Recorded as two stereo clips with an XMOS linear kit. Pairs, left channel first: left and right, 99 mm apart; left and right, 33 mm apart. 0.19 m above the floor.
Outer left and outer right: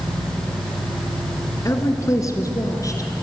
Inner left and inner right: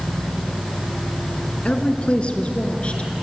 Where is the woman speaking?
30° left (ahead or behind), 1.7 m; by 3.2 s 35° left (ahead or behind), 2.5 m.